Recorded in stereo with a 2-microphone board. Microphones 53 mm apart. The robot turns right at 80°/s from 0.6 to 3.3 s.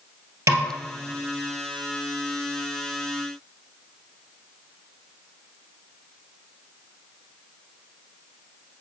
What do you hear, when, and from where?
0.5 s a snare drum: 65° right (ahead or behind), 1.7 m; by 0.7 s 75° right (ahead or behind), 1.7 m